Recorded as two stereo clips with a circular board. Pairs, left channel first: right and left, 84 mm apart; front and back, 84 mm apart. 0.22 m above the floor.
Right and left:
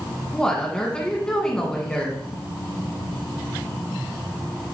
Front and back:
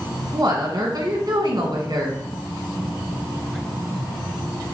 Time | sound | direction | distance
0.3 | a woman speaking | 165° right | 1.9 m